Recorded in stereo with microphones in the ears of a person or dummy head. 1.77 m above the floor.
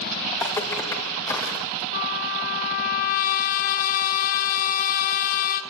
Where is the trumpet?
45° left (ahead or behind), 2.0 m.